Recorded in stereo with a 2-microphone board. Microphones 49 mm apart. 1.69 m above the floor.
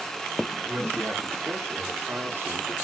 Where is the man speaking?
35° right (ahead or behind), 1.8 m; by 2.7 s 55° right (ahead or behind), 0.5 m.